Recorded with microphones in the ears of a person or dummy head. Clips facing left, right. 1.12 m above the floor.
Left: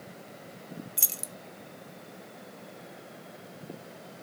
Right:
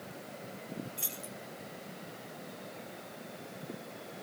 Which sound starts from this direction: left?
Keys jangling, at 1.0 s.